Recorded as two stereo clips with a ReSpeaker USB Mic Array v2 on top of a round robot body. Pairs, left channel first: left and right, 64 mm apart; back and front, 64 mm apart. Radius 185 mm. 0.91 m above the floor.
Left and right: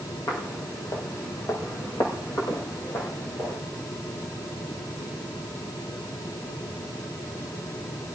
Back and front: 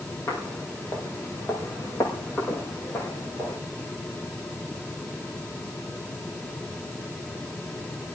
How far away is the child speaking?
No child speaking in this recording.